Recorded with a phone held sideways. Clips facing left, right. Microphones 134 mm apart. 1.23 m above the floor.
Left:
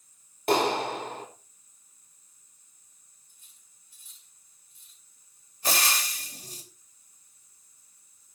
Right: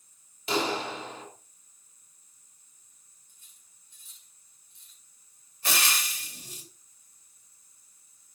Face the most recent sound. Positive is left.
turn(degrees=40)  # may be behind; listen again after turning